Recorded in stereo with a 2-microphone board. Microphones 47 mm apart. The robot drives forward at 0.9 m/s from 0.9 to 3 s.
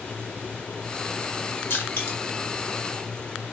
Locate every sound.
1.7 s crushing: 50° left (ahead or behind), 1.8 m; by 2.2 s 65° left (ahead or behind), 1.5 m